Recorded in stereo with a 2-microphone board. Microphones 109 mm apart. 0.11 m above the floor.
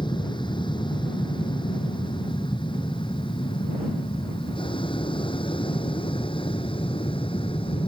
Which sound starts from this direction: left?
An aircraft, at 0.0 s.